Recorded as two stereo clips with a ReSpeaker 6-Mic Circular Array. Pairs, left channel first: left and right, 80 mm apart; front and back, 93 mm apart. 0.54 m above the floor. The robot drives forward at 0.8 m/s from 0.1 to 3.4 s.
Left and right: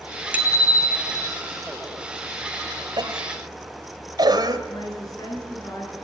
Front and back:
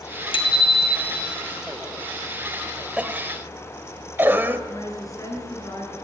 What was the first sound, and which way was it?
A bicycle bell, 20° right.